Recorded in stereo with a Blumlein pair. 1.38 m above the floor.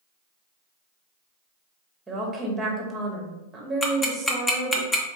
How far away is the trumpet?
I don't hear a trumpet.